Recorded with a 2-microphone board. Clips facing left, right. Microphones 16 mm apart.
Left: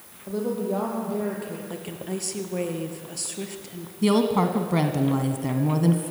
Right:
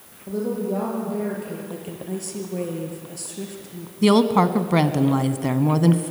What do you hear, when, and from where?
0.3 s a woman speaking: 15° left (ahead or behind), 5 m
1.7 s a woman speaking: 25° left (ahead or behind), 3 m
4.0 s a woman speaking: 25° right (ahead or behind), 1.3 m